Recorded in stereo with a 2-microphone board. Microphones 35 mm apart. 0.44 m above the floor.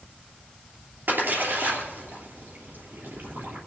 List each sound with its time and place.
1.1 s a splash: 65° right (ahead or behind), 3 m